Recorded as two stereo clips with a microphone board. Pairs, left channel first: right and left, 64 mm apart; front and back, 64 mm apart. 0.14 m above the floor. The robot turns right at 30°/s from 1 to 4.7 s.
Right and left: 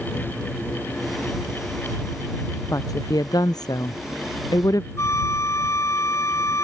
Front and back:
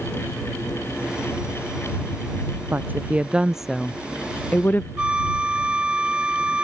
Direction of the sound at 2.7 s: 120° right.